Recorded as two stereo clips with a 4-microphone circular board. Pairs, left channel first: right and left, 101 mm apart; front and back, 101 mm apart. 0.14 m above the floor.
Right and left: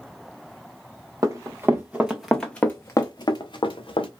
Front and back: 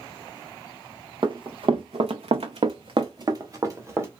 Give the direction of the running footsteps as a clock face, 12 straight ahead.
7 o'clock.